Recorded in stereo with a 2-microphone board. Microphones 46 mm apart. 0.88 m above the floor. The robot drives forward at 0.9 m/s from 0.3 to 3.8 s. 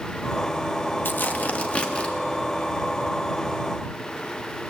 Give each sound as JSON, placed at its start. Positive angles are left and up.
{"t": 1.1, "sound": "tearing paper", "side_deg": 50, "distance_m": 0.9}